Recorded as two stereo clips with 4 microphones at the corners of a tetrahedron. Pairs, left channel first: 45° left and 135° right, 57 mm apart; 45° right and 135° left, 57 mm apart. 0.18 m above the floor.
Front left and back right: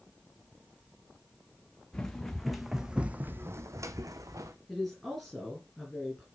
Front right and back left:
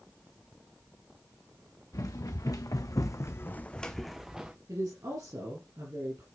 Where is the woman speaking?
135° left, 3.5 m.